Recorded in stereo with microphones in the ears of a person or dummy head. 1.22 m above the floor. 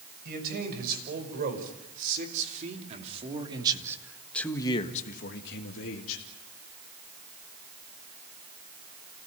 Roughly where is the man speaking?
Right.